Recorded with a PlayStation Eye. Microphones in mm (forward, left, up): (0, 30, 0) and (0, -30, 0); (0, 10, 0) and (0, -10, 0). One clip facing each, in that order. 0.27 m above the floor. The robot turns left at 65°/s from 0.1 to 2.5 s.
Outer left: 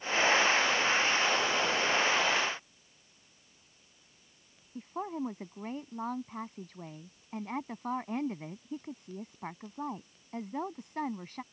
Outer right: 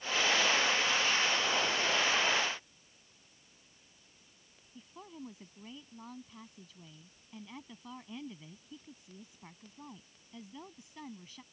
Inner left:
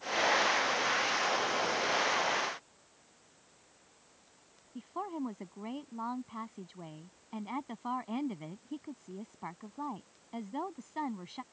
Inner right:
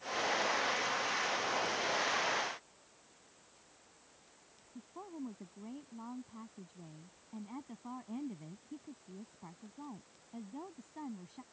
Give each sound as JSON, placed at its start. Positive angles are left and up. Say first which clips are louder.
{"t": 4.8, "sound": "a woman speaking", "louder": "outer left 13 dB, inner left 8 dB", "side_deg": 50}